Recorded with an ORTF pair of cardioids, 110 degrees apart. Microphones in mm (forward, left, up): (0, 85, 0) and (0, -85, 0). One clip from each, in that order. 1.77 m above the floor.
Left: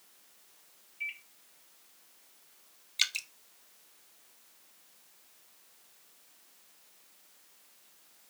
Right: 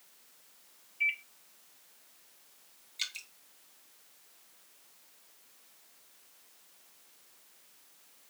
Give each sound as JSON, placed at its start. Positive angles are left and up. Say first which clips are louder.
{"t": 1.0, "sound": "a microwave", "louder": "right 8 dB", "azimuth_deg": -30, "distance_m": 1.4}
{"t": 3.0, "sound": "dripping", "louder": "left 7 dB", "azimuth_deg": 55, "distance_m": 1.6}